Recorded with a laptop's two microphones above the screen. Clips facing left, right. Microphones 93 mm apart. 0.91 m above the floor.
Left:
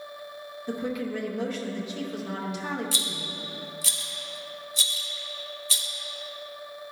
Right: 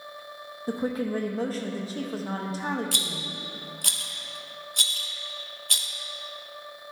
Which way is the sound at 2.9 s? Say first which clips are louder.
Even; 60° right (ahead or behind).